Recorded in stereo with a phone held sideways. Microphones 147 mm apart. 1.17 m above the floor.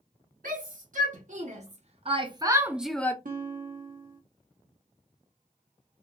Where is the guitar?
70° right (ahead or behind), 0.8 m.